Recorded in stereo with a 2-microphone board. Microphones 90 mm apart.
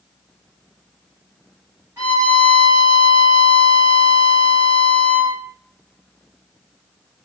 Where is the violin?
35° right (ahead or behind), 1.9 m.